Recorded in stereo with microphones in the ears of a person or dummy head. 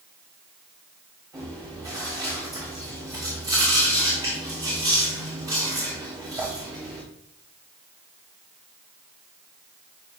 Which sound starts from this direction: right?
Chewing, at 1.3 s.